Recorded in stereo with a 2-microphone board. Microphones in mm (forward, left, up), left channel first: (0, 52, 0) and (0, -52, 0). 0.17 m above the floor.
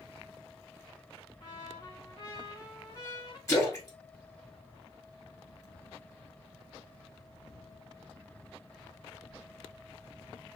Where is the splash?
25° left (ahead or behind), 2 m.